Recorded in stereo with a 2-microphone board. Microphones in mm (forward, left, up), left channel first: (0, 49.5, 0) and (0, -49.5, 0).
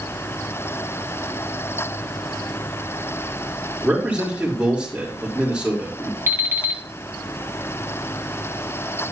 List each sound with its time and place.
3.8 s a man speaking: 10° right (ahead or behind), 4 m
6.3 s an alarm clock: 30° right (ahead or behind), 1.3 m